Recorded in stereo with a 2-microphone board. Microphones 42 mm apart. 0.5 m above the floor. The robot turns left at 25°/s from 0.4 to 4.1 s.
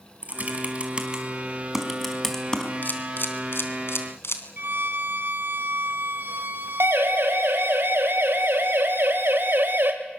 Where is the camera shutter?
45° left (ahead or behind), 3 m; by 4.4 s 75° left (ahead or behind), 3 m.